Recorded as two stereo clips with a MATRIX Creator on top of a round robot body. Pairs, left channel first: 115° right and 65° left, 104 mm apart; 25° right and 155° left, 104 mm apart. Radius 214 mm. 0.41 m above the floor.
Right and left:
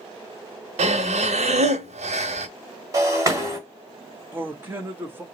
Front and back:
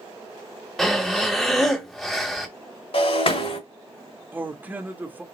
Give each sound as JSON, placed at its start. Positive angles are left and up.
{"t": 0.8, "sound": "breathing", "azimuth_deg": 65, "distance_m": 0.7}
{"t": 2.9, "sound": "breaking glass", "azimuth_deg": 10, "distance_m": 1.9}
{"t": 4.3, "sound": "a man speaking", "azimuth_deg": 105, "distance_m": 1.5}